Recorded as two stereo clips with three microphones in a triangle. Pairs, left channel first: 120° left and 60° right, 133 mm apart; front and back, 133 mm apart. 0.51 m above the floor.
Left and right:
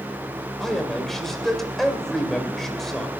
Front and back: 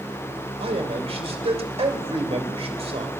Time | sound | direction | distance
0.6 | a man speaking | 150° right | 2.5 m